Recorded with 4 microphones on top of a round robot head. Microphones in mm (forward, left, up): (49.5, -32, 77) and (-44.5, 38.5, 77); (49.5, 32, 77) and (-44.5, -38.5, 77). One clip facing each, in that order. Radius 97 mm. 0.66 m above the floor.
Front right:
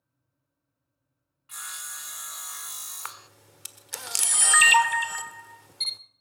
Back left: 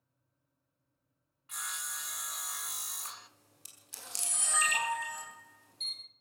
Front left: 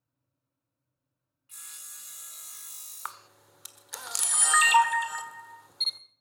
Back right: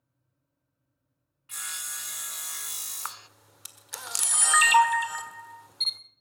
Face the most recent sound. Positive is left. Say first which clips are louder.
# front right 8 dB, even
turn(degrees=-55)